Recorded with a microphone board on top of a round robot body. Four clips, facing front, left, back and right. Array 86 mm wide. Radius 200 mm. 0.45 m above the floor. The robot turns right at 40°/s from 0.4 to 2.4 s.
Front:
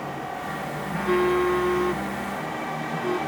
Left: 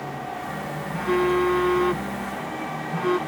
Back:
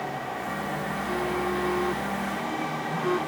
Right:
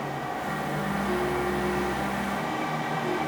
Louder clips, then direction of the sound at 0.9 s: Left 8 dB, front 9 dB; 40° left.